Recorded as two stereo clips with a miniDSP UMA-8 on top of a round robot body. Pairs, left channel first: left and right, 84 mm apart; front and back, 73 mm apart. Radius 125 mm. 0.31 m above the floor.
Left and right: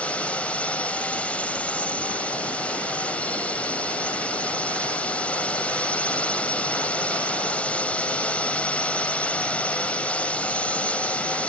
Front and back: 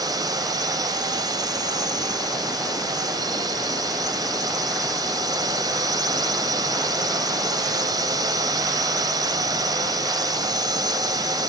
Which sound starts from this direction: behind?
A drone, at 0.0 s.